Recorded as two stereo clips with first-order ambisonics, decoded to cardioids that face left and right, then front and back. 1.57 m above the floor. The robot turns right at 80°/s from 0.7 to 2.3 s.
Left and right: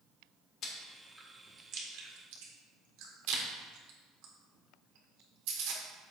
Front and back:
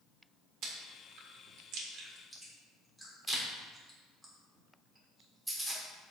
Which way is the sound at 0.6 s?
140° left.